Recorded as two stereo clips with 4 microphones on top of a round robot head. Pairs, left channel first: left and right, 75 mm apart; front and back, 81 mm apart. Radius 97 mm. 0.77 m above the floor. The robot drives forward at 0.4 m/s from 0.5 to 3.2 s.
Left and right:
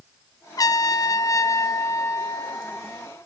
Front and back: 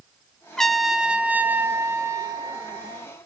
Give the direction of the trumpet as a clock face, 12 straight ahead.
9 o'clock.